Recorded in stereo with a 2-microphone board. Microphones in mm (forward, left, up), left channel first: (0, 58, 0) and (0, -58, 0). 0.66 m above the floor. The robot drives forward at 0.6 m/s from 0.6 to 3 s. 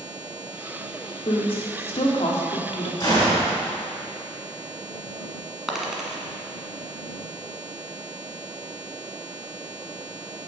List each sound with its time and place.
1.2 s a woman speaking: 50° left (ahead or behind), 1.7 m
3.0 s a gunshot: 35° left (ahead or behind), 4 m
5.7 s a dropped coin: 5° right (ahead or behind), 1.4 m